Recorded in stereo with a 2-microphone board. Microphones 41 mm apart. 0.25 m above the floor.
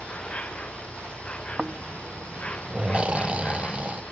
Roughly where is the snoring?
Right.